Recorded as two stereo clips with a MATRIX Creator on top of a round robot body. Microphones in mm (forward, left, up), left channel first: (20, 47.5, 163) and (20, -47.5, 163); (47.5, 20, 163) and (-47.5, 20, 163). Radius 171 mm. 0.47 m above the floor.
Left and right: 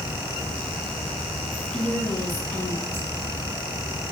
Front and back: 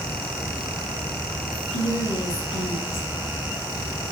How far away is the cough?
No cough in this recording.